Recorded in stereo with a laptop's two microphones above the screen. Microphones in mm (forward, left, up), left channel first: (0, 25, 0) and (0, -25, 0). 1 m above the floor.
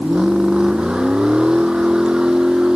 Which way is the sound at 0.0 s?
15° right (ahead or behind).